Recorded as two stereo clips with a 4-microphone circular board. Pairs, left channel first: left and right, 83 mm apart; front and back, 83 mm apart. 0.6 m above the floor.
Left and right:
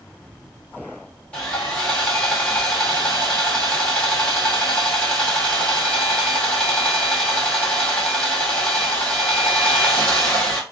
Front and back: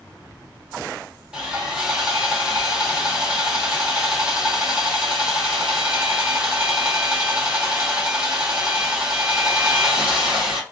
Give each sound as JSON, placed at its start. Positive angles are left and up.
{"t": 1.3, "sound": "sawing", "azimuth_deg": 125, "distance_m": 1.2}